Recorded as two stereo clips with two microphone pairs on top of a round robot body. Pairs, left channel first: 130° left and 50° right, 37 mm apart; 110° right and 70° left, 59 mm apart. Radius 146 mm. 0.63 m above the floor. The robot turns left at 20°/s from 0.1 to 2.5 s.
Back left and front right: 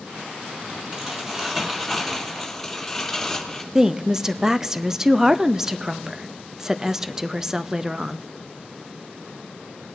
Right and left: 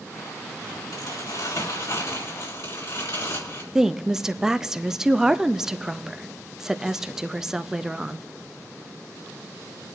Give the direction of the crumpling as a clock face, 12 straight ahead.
4 o'clock.